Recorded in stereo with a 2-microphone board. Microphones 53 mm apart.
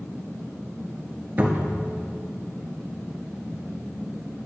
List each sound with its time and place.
1.4 s a cupboard door: 30° right (ahead or behind), 1.5 m